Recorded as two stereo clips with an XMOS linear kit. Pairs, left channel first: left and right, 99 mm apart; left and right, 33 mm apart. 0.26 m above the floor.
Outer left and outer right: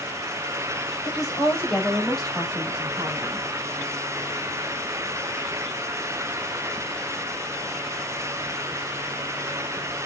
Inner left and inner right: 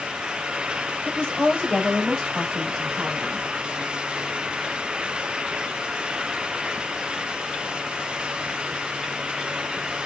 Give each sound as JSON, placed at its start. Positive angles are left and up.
{"t": 1.1, "sound": "a woman speaking", "side_deg": 35, "distance_m": 1.3}